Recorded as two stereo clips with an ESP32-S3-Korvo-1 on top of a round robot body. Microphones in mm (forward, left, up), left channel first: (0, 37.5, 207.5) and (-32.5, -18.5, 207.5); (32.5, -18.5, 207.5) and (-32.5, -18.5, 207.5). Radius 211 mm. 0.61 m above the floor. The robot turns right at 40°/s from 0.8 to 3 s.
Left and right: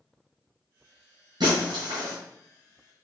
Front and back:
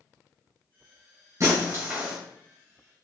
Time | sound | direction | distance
1.4 | breaking glass | 130° right | 1.8 m